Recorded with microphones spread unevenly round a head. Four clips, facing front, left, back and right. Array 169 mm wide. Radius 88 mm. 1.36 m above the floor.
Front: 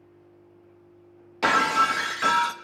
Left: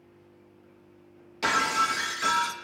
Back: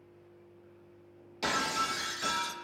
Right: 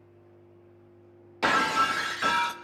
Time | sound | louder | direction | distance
1.4 | breaking glass | right 1 dB, front 11 dB | 20° right | 1.2 m